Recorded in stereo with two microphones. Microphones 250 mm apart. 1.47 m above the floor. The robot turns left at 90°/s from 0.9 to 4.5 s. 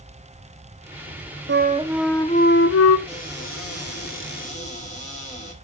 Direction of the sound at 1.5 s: 130° right.